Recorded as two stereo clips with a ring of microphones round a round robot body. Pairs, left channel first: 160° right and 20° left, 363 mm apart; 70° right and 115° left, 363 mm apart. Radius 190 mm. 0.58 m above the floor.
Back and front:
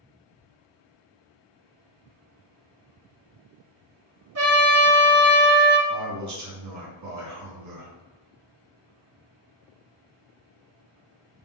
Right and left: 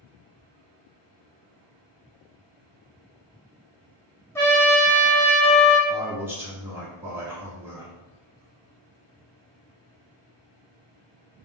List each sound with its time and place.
4.3 s a trumpet: 15° left, 1.2 m
5.9 s a man speaking: 30° left, 0.8 m